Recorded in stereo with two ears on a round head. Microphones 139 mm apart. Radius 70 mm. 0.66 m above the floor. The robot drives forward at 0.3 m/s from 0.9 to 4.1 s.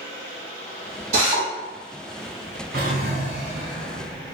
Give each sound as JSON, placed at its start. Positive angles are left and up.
{"t": 1.1, "sound": "a drill", "side_deg": -50, "distance_m": 1.5}
{"t": 2.7, "sound": "a drawer", "side_deg": -75, "distance_m": 1.9}